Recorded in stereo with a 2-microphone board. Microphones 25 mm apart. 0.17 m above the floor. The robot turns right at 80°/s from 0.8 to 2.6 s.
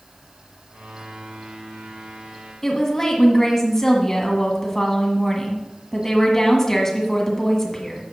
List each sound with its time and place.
2.6 s a woman speaking: 20° left (ahead or behind), 1.4 m